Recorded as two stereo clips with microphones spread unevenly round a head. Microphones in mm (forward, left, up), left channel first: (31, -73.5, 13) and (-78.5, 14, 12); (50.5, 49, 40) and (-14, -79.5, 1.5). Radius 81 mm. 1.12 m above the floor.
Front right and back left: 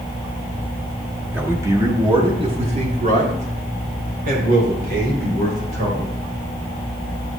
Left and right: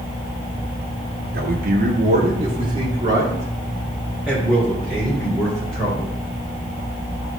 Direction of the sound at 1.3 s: 140° right.